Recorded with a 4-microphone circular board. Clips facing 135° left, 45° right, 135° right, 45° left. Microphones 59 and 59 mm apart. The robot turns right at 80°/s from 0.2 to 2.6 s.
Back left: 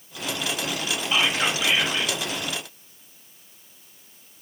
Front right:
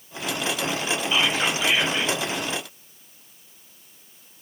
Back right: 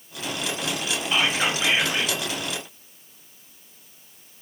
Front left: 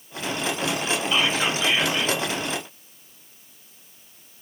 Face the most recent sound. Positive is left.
turn(degrees=-50)